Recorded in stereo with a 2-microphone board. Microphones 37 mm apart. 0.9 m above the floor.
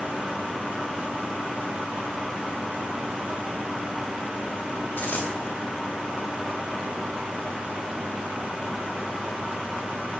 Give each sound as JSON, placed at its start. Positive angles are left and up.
{"t": 5.0, "sound": "a dropped coin", "side_deg": 75, "distance_m": 2.0}